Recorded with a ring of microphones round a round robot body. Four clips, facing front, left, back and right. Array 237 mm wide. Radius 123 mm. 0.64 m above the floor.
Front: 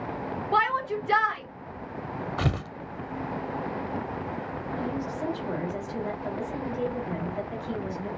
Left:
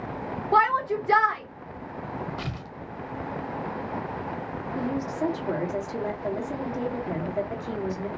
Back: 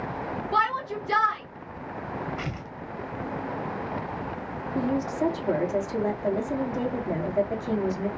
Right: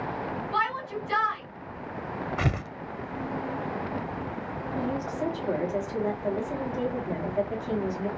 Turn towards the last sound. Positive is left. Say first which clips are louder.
# left 2 dB, back 7 dB
turn(degrees=155)